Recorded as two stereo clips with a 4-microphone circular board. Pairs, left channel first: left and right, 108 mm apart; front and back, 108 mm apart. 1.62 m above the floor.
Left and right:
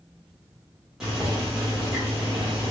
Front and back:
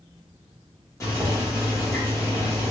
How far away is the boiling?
About 1.3 m.